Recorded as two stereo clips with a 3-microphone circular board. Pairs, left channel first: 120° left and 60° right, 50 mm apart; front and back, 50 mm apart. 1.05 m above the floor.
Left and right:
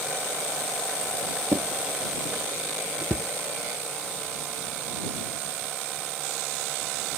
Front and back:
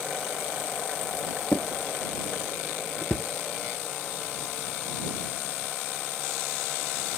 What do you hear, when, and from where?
1.5 s a drawer: 45° right